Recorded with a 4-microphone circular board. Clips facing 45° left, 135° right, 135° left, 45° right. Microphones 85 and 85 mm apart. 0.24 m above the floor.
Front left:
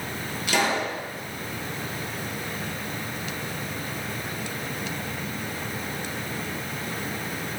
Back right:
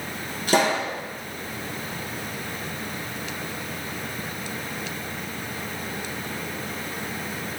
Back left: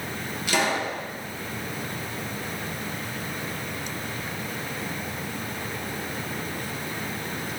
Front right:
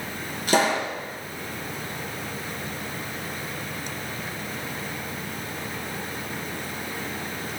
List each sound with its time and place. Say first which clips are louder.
0.5 s a pop: back right 3 dB, front right 3 dB; 90° right, 3 m